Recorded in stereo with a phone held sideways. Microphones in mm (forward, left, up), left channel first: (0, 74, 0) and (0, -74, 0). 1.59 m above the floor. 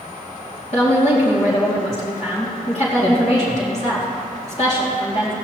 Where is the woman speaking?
50° left (ahead or behind), 2.5 m.